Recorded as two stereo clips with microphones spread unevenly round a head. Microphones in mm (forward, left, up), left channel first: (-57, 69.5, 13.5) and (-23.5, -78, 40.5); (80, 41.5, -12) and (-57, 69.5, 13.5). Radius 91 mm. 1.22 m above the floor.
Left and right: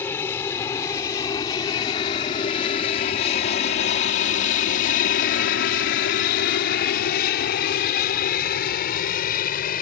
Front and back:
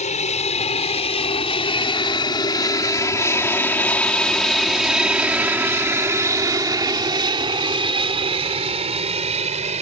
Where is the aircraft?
25° left; by 9.8 s 130° left.